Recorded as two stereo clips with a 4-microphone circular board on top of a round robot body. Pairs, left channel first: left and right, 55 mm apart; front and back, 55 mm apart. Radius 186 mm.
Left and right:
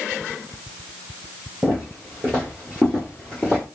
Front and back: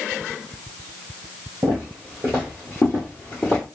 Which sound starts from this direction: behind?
Footsteps, at 1.6 s.